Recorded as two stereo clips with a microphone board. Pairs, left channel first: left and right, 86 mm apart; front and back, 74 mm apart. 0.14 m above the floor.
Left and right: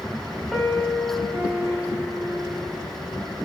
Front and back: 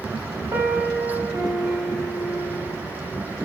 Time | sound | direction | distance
0.5 | a piano | 175° left | 1.0 m